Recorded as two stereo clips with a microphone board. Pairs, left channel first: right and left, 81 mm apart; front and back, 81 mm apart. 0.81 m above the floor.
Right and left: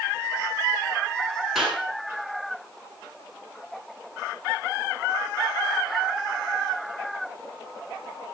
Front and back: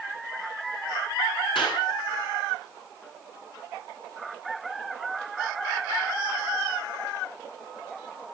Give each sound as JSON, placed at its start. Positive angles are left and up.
{"t": 1.6, "sound": "a clap", "azimuth_deg": 5, "distance_m": 9.5}